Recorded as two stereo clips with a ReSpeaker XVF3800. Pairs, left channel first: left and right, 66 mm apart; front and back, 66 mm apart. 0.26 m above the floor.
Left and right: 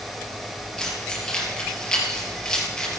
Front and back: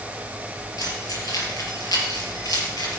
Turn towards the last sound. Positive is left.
turn(degrees=10)